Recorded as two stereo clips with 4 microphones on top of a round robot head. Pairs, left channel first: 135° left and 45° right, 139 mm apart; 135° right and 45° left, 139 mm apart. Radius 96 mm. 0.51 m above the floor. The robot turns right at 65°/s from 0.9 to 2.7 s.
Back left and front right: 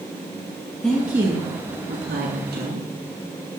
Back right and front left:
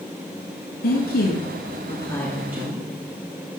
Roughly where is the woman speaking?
Behind right.